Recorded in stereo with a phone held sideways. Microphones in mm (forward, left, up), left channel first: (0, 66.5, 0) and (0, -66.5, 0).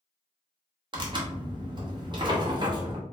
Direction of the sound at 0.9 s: 35° right (ahead or behind).